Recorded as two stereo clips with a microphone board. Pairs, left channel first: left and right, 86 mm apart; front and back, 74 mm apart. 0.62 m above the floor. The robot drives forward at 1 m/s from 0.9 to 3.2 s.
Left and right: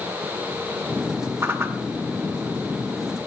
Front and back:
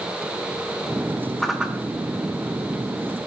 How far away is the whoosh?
About 0.9 m.